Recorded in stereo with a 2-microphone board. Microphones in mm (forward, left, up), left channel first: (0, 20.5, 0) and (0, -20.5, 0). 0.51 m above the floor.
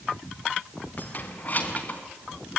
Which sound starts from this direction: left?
Keys jangling, at 1.0 s.